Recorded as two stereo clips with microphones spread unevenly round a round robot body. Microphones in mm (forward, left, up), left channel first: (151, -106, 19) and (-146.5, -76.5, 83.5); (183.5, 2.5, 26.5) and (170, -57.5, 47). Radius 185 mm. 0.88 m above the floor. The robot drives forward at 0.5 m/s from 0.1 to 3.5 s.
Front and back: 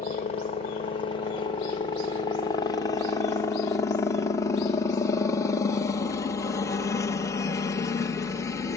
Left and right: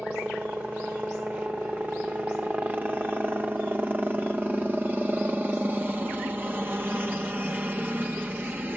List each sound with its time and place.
0.0 s a helicopter: 30° right; by 8.8 s 45° right